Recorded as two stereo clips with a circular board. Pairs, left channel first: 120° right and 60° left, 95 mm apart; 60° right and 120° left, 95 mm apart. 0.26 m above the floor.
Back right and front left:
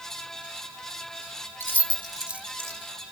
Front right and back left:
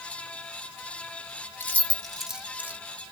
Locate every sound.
1.6 s keys jangling: 100° right, 0.9 m; by 2.8 s 70° left, 0.9 m